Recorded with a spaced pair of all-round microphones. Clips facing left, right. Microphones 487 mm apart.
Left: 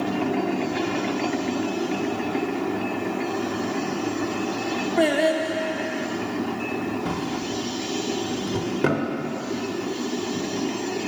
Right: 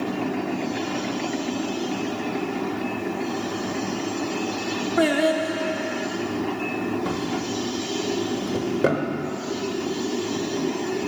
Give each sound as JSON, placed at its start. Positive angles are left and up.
{"t": 5.0, "sound": "singing", "side_deg": -30, "distance_m": 0.6}
{"t": 7.0, "sound": "a drawer", "side_deg": 15, "distance_m": 1.0}